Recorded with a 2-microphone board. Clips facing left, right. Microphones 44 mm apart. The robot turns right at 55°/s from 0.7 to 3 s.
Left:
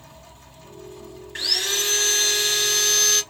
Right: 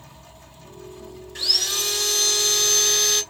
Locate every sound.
1.4 s sawing: 95° left, 1.4 m; by 3.2 s 175° right, 1.4 m